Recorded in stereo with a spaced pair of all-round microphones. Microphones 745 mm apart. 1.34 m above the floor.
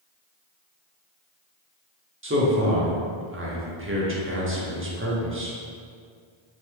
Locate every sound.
2.2 s a man speaking: 20° right (ahead or behind), 0.5 m